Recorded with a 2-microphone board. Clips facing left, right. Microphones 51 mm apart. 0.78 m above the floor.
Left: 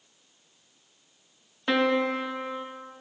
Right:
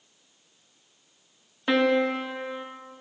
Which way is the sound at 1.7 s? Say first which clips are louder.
Right 2 dB; 5° right (ahead or behind).